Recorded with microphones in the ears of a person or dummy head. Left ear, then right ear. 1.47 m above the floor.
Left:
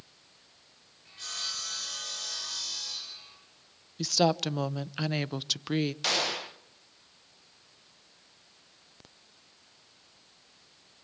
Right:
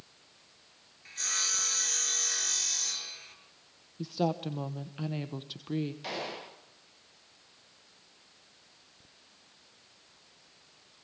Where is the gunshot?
55° left (ahead or behind), 1.6 m.